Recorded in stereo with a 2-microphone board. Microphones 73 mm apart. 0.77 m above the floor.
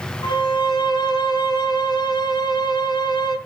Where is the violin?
80° left, 3.5 m.